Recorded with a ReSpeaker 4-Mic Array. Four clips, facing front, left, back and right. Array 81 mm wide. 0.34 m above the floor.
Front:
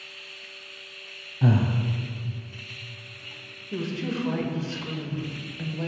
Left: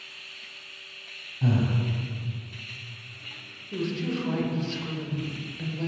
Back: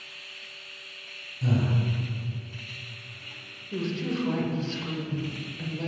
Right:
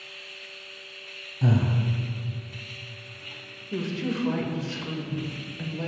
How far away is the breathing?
About 0.6 m.